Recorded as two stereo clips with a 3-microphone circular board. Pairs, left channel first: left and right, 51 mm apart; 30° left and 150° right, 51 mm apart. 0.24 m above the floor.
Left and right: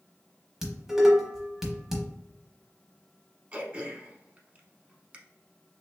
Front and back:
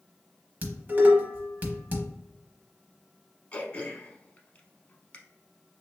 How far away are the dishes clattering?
About 0.8 m.